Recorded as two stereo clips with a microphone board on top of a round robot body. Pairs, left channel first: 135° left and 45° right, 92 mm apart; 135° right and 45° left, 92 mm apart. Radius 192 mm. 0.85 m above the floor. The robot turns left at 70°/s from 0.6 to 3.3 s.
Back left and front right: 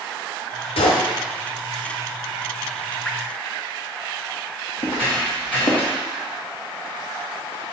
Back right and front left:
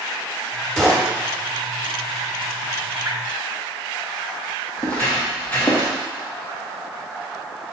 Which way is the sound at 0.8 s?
140° left.